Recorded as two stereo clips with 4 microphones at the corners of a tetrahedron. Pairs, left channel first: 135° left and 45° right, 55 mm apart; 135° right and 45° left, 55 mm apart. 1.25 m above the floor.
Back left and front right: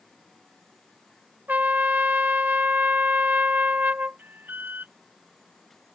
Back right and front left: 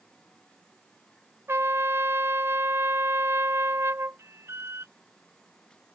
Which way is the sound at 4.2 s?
10° left.